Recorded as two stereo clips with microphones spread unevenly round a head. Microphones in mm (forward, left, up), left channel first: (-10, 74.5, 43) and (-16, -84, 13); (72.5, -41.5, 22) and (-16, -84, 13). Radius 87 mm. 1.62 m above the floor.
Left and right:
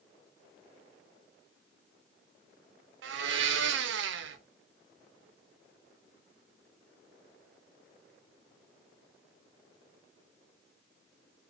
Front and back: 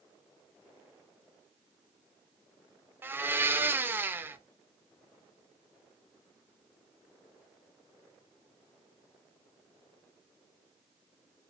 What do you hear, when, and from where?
3.0 s a blender: 85° right, 0.5 m